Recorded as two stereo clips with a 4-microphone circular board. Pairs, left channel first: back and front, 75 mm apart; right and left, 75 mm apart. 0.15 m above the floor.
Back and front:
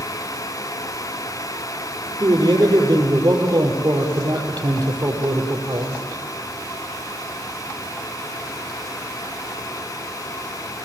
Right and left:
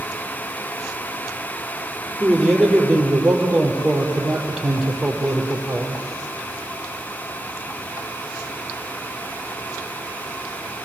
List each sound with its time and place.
2.2 s a man speaking: 5° left, 5 m